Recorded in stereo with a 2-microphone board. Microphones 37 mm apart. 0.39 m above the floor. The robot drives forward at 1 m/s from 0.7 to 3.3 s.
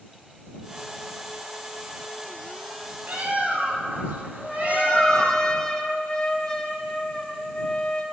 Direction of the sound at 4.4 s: 20° left (ahead or behind).